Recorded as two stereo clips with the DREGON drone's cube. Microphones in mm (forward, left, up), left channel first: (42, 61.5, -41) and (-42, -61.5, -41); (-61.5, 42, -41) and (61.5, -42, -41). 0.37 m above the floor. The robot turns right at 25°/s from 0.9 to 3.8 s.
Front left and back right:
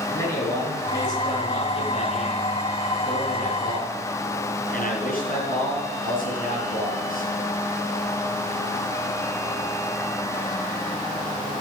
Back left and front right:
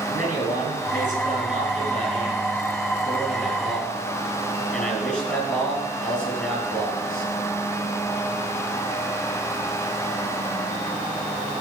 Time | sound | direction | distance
0.1 | a man speaking | 10° right | 5 m